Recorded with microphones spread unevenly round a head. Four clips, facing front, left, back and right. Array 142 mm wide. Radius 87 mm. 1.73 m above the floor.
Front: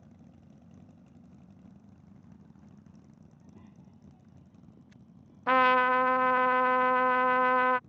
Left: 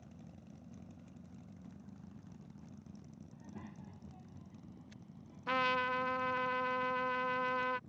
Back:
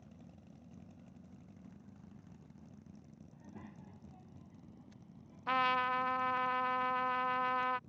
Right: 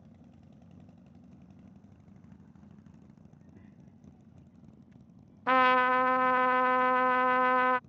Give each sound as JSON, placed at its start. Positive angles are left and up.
{"t": 3.3, "sound": "a child speaking", "azimuth_deg": 165}
{"t": 5.5, "sound": "a trumpet", "azimuth_deg": -50}